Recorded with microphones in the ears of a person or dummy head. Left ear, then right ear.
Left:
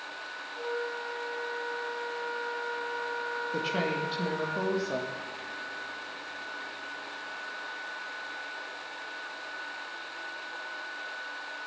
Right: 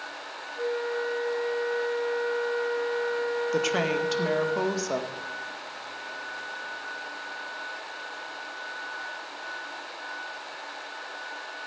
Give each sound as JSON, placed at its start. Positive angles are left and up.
{"t": 0.6, "sound": "a flute", "side_deg": -70, "distance_m": 5.5}
{"t": 3.5, "sound": "a woman speaking", "side_deg": -55, "distance_m": 2.0}